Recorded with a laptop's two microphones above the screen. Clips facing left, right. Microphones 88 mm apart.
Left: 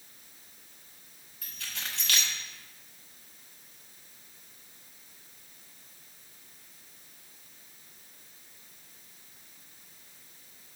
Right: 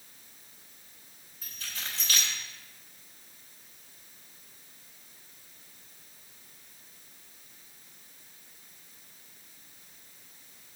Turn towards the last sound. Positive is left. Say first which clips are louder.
# even
turn(degrees=70)  # may be behind; listen again after turning